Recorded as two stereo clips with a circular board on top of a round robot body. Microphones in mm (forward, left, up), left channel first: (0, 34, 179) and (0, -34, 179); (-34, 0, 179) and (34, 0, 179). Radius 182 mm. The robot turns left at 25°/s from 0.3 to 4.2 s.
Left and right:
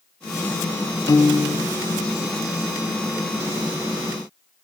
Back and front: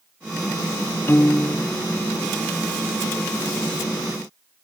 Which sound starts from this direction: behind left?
A piano, at 1.1 s.